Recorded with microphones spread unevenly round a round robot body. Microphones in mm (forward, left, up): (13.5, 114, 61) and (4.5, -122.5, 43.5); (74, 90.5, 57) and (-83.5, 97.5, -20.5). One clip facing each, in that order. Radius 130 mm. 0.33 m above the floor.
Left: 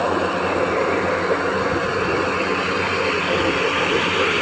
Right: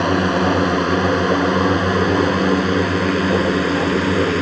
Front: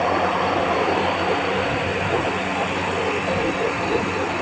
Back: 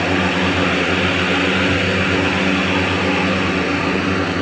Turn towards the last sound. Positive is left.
turn(degrees=-135)